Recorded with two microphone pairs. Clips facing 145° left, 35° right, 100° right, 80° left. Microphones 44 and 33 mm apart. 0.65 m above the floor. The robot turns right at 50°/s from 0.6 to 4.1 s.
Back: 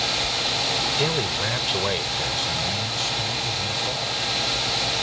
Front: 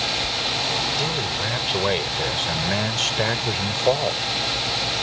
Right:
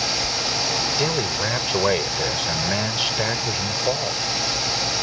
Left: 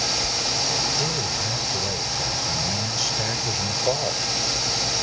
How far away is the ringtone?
I don't hear a ringtone.